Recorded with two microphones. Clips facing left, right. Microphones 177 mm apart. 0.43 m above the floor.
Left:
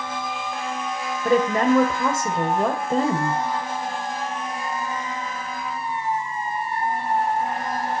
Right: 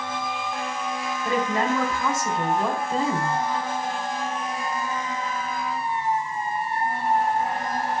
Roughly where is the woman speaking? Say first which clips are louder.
Left 6 dB; left.